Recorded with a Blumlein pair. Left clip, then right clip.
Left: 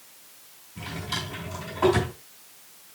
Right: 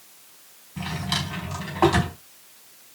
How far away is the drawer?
About 4.5 m.